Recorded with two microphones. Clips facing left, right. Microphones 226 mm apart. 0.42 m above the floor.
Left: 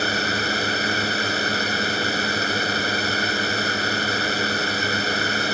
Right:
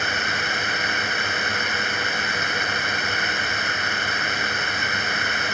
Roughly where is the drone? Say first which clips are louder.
Left 5 dB; left.